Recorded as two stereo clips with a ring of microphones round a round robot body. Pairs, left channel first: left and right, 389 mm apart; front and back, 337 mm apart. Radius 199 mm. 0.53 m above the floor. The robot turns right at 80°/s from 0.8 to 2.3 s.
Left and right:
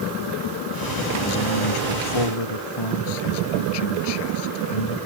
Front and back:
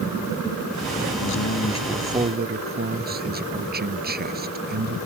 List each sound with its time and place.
1.2 s a man speaking: 30° left; by 5.0 s 115° left